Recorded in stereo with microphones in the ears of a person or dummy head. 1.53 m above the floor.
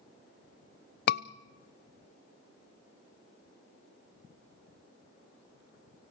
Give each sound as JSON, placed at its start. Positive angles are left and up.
{"t": 1.1, "sound": "a scream", "side_deg": 60, "distance_m": 0.7}